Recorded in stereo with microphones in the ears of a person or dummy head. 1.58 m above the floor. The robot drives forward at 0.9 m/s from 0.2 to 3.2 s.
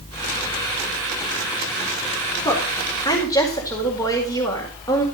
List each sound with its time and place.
2.5 s a woman speaking: 25° left (ahead or behind), 4 m; by 5.0 s 20° left (ahead or behind), 4.5 m